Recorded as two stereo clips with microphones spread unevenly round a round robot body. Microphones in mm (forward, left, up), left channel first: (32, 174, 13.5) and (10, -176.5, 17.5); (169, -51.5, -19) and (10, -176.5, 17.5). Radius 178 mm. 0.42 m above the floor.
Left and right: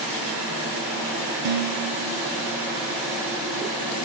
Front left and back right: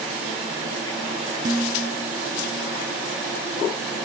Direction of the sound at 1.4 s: 70° right.